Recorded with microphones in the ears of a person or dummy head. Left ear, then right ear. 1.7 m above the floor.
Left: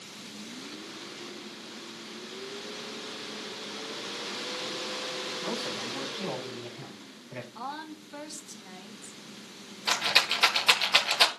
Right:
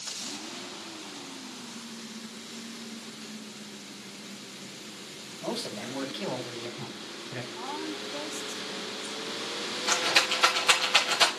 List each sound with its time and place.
5.4 s a man speaking: 5° right (ahead or behind), 9 m; by 7.5 s 5° left (ahead or behind), 8.5 m
7.5 s a woman speaking: 65° left (ahead or behind), 2 m
9.9 s a rattle: 25° left (ahead or behind), 1.8 m